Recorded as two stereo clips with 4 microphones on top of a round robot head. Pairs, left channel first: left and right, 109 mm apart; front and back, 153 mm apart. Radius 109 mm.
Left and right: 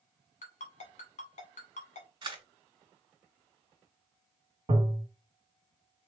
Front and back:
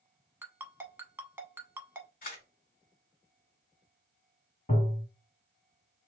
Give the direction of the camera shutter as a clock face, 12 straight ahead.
2 o'clock.